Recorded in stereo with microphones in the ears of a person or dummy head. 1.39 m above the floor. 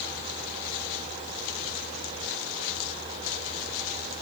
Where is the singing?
No singing in this recording.